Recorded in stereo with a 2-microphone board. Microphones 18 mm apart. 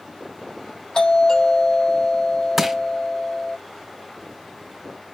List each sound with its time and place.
0.9 s a doorbell: 60° left (ahead or behind), 3.5 m
2.6 s crushing: 5° right (ahead or behind), 1.0 m